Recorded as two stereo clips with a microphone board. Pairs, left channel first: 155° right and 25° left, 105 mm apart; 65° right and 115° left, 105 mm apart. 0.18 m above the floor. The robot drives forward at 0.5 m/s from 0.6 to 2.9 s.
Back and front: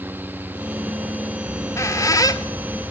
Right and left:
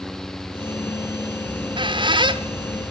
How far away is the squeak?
About 1.7 m.